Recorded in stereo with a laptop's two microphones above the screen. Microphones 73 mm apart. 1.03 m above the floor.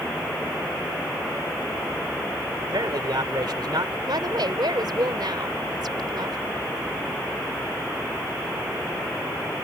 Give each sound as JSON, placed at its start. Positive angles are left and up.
{"t": 2.6, "sound": "a man speaking", "side_deg": -80}
{"t": 4.1, "sound": "a woman speaking", "side_deg": -75}